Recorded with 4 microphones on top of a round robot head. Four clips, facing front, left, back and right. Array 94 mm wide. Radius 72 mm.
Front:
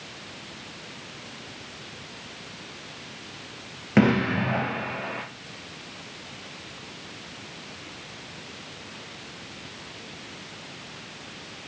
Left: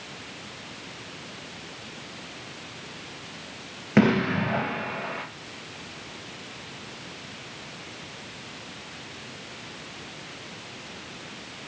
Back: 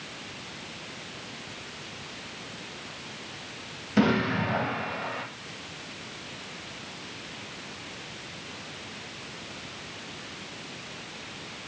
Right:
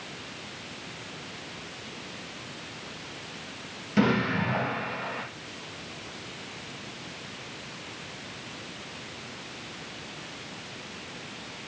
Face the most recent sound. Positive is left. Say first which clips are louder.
# left 3 dB, front 3 dB
turn(degrees=50)